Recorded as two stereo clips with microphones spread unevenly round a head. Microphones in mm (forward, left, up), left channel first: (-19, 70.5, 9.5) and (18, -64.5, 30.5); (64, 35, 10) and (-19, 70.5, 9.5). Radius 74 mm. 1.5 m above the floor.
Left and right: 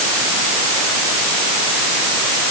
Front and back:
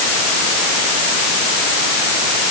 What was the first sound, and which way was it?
Only background noise.